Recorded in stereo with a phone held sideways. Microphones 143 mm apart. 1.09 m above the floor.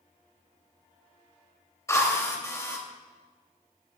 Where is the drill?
20° left (ahead or behind), 2.5 m.